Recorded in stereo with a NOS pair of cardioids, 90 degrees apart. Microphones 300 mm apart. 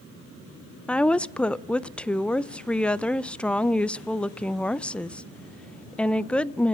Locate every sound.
0.9 s a woman speaking: 5° left, 0.5 m